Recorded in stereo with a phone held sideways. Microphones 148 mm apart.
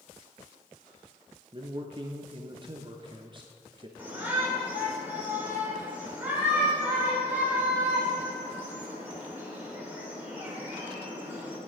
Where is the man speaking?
35° right (ahead or behind), 0.5 m.